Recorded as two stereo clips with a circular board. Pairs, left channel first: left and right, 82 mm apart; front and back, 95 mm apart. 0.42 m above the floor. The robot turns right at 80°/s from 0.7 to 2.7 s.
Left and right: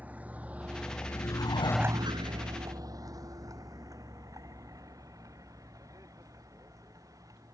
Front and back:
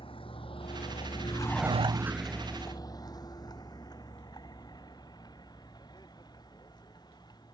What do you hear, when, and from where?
0.0 s a vehicle: 20° right; by 7.5 s 45° right